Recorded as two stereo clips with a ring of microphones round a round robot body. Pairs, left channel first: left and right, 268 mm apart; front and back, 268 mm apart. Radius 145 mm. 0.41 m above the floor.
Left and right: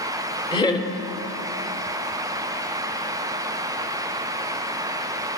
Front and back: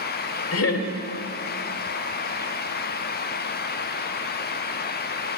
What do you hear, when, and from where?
0.5 s laughter: 20° left, 1.2 m